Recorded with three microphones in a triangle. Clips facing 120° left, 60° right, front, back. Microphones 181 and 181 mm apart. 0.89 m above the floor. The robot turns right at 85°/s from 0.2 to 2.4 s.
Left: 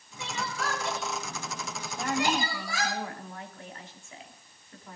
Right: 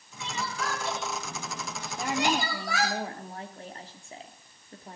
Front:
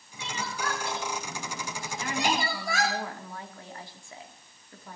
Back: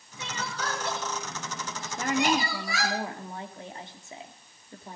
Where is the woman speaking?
150° right, 2.5 m; by 5.0 s 115° right, 2.5 m.